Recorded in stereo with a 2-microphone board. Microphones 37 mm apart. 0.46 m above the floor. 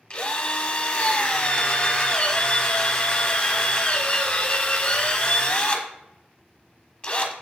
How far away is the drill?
About 0.9 m.